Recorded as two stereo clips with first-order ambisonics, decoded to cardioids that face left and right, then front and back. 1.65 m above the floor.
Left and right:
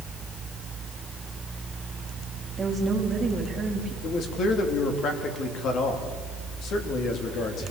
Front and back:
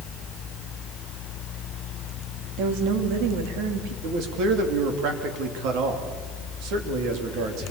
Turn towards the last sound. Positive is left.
turn(degrees=145)